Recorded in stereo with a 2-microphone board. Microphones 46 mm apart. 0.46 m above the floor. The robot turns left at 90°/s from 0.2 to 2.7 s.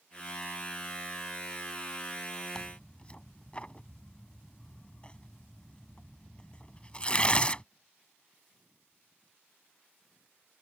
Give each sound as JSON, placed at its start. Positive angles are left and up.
{"t": 2.5, "sound": "tearing paper", "side_deg": 15}